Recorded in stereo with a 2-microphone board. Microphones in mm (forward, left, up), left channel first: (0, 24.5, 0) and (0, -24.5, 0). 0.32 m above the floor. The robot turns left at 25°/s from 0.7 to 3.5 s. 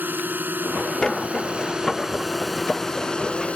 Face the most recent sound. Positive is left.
turn(degrees=155)